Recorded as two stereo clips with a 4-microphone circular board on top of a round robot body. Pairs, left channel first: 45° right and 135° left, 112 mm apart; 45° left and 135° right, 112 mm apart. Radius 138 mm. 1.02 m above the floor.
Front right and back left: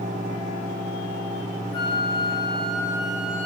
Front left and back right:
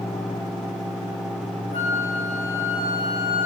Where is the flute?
15° left, 4 m.